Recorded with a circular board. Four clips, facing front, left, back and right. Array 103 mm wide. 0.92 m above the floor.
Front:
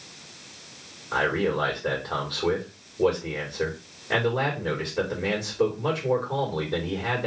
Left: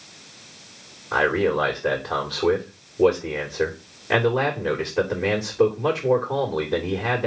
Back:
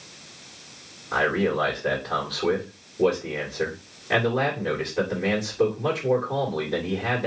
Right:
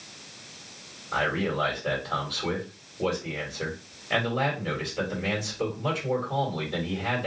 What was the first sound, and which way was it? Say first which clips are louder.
A man speaking: left 7 dB, back 2 dB; 105° left.